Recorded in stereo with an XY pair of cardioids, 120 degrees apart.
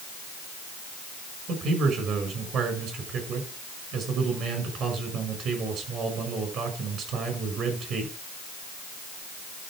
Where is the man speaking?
60° right, 6 m.